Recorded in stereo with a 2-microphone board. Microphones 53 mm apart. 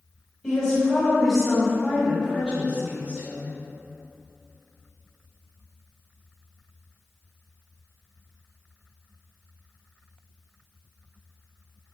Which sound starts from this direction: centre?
A woman speaking, at 0.4 s.